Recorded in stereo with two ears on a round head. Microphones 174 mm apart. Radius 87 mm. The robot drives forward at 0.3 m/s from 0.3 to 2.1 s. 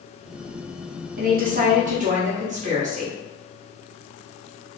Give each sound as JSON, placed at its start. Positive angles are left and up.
{"t": 1.2, "sound": "a woman speaking", "side_deg": -45, "distance_m": 0.8}